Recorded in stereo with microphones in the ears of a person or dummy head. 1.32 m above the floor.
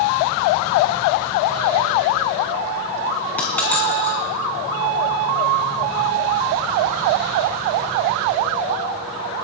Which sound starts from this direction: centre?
A dropped coin, at 3.4 s.